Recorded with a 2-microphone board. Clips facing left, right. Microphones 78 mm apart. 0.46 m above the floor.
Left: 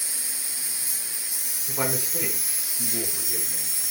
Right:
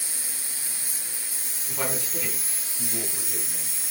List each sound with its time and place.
0.0 s an insect: 15° left (ahead or behind), 0.9 m
1.7 s a man speaking: 20° left (ahead or behind), 1.4 m